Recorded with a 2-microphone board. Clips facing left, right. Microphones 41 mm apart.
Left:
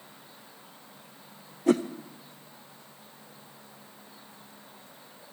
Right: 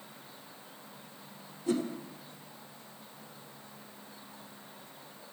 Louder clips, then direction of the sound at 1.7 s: Left 7 dB; 70° left (ahead or behind).